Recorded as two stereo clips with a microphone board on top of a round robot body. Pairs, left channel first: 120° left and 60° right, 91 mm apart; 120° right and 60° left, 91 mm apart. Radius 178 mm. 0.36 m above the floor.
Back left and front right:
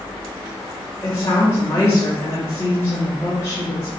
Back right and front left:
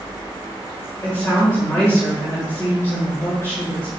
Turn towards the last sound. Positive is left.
turn(degrees=180)